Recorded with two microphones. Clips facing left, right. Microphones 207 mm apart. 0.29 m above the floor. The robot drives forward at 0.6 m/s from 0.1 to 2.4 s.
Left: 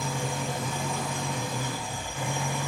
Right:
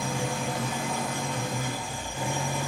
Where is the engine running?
75° right (ahead or behind), 1.0 m; by 2.7 s 40° right (ahead or behind), 1.6 m.